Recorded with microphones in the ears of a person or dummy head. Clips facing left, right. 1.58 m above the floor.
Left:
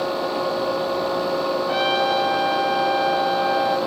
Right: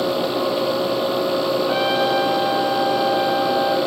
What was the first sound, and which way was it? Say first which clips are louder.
A trumpet: right 2 dB; centre (ahead or behind).